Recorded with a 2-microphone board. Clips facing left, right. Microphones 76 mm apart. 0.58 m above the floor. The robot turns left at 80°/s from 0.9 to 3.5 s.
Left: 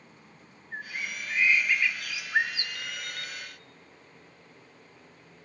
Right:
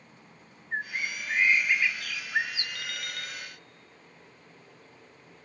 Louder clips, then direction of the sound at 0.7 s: Right 4 dB; 90° right.